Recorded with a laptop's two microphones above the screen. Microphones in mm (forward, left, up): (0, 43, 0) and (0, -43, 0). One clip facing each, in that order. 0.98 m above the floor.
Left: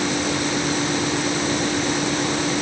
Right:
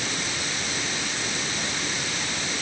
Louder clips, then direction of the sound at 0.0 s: Left 9 dB; 60° left (ahead or behind).